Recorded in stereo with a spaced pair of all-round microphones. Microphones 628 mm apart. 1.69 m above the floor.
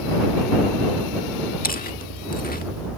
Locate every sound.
1.6 s chewing: 15° left (ahead or behind)